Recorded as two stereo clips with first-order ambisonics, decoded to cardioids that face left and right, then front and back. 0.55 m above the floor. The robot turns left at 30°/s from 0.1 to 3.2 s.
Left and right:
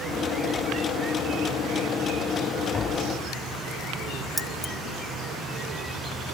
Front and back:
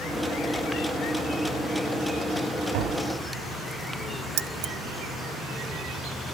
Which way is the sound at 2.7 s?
160° left.